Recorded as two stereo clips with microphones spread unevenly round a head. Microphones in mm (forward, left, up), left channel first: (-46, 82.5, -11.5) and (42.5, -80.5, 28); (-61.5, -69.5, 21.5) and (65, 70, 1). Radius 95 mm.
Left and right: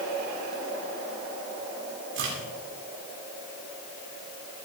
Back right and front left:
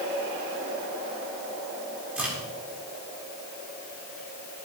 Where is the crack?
35° right, 7.5 m.